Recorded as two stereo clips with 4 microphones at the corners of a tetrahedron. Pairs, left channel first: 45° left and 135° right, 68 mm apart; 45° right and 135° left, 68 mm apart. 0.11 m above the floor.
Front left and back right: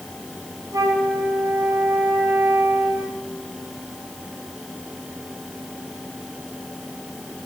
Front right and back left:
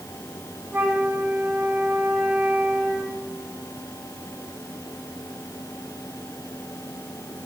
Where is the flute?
160° right, 3.5 m.